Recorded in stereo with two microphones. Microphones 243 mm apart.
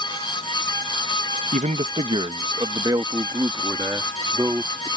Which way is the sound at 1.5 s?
30° right (ahead or behind).